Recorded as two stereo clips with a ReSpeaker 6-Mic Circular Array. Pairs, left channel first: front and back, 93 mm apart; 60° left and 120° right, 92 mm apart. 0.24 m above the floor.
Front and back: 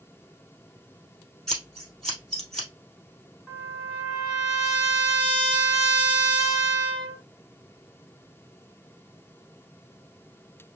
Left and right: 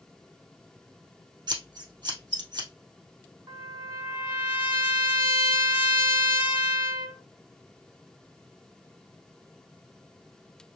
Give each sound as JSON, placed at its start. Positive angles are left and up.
{"t": 1.5, "sound": "scissors", "azimuth_deg": -85, "distance_m": 2.0}
{"t": 3.5, "sound": "a trumpet", "azimuth_deg": -85, "distance_m": 2.5}